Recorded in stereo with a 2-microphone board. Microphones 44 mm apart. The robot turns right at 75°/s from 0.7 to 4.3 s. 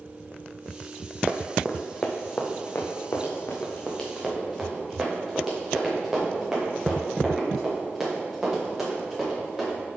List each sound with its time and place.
1.3 s running footsteps: 30° right (ahead or behind), 0.8 m; by 9.8 s 10° right (ahead or behind), 5 m